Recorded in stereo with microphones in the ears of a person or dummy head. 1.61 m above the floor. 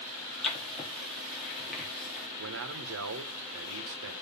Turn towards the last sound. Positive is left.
turn(degrees=-65)  # may be behind; listen again after turning